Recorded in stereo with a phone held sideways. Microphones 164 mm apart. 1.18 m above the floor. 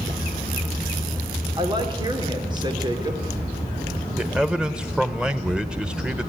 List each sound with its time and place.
1.6 s a woman speaking: 30° right (ahead or behind), 2.5 m
4.2 s a man speaking: 5° right (ahead or behind), 1.2 m